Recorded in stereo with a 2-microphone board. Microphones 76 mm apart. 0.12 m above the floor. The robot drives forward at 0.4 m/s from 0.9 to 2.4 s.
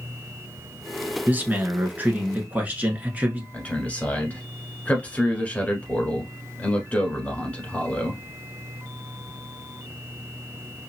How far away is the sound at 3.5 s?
About 1.2 m.